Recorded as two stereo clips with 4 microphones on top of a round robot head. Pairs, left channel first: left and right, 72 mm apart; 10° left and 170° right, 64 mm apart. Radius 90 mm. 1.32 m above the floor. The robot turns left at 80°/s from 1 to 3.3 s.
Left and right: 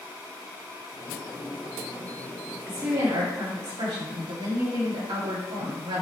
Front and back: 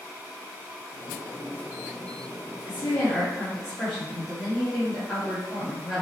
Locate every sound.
2.7 s a woman speaking: 30° right, 2.5 m; by 6.0 s 85° right, 2.5 m